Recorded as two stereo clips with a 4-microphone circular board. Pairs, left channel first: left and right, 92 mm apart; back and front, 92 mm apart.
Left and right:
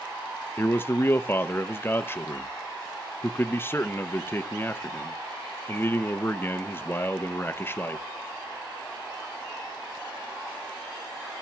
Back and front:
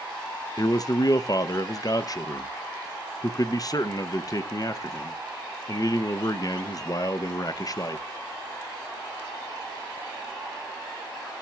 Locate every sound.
0.6 s a man speaking: 145° left, 0.5 m